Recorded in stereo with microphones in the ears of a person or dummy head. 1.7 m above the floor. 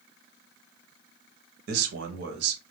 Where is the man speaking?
60° right (ahead or behind), 0.8 m.